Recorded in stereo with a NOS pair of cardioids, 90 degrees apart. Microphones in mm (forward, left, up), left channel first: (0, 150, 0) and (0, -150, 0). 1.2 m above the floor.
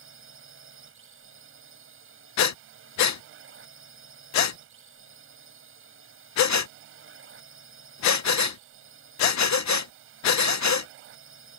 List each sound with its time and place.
0.0 s a drone: 45° right
2.4 s breathing: 65° left